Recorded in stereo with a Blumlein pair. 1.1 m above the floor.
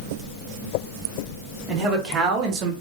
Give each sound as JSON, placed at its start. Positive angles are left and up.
{"t": 1.7, "sound": "a man speaking", "azimuth_deg": -15, "distance_m": 1.1}